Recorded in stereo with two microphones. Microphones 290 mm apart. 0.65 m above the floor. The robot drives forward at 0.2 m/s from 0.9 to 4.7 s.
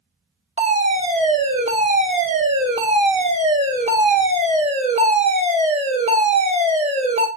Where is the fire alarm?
20° right (ahead or behind), 2.0 m.